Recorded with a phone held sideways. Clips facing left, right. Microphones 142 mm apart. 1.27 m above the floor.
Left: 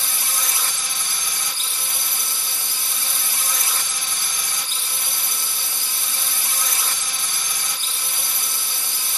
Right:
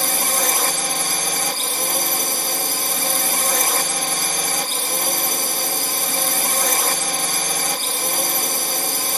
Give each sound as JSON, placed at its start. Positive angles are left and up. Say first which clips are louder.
{"t": 0.0, "sound": "a drone", "louder": "right 10 dB", "side_deg": -60}